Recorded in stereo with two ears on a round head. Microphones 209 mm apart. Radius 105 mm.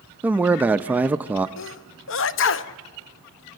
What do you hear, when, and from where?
0.2 s a man speaking: 5° right (ahead or behind), 0.5 m
1.6 s a sneeze: 55° left (ahead or behind), 0.8 m